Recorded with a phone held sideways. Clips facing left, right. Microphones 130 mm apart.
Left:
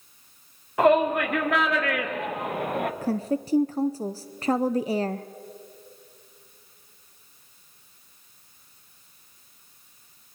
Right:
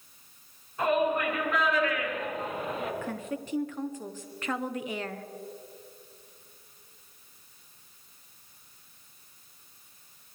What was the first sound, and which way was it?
A shout, 80° left.